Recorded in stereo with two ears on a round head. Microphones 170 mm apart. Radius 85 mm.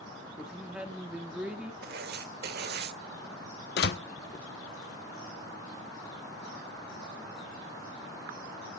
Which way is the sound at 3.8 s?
60° left (ahead or behind).